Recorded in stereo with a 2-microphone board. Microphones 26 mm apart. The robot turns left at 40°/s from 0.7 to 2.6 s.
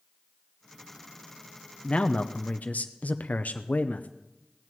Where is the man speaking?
140° left, 0.7 m; by 4.1 s 110° left, 0.7 m.